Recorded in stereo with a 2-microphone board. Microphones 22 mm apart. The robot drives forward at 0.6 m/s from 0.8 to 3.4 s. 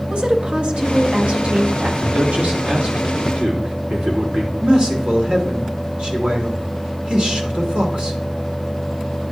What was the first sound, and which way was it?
A woman speaking, 60° right (ahead or behind).